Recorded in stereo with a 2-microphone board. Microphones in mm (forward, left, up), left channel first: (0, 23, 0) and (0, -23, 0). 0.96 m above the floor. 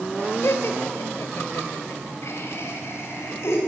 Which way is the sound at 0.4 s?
65° left (ahead or behind).